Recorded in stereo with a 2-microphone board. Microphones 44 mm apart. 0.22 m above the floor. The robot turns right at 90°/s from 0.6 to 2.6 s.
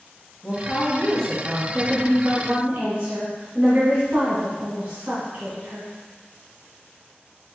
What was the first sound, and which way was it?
A woman speaking, 20° left (ahead or behind).